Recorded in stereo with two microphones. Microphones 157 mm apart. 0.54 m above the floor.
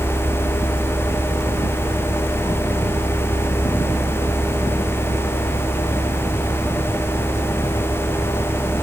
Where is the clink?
No clink in this recording.